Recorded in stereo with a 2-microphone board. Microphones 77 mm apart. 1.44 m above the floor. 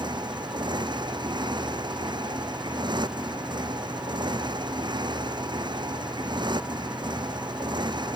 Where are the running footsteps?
No running footsteps in this recording.